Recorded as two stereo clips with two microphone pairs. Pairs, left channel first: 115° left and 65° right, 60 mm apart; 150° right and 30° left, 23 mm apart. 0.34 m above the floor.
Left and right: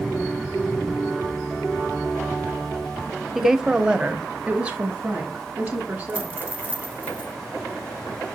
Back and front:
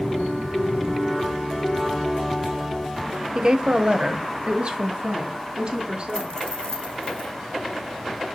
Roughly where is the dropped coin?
Behind right.